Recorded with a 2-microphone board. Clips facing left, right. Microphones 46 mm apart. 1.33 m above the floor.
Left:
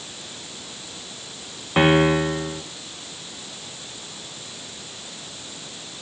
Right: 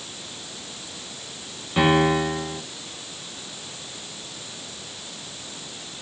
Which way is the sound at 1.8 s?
35° left (ahead or behind).